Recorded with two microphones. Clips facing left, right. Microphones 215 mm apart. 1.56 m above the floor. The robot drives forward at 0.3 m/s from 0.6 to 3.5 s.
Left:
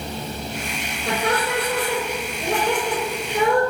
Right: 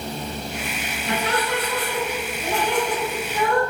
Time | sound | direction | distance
1.1 | laughter | 75° left (ahead or behind) | 4.5 m